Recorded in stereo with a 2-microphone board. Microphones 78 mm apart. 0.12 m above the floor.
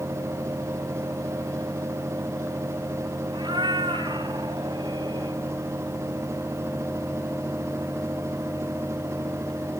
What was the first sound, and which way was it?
A cat meowing, 90° right.